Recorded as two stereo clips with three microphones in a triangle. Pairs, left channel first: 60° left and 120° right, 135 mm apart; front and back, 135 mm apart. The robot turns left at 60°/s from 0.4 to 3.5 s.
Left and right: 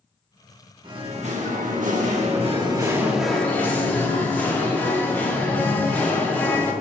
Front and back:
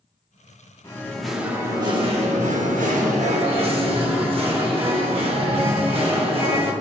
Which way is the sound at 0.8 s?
65° right.